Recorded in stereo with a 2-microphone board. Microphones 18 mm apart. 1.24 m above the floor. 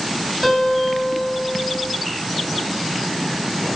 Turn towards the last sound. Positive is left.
turn(degrees=-10)  # may be behind; listen again after turning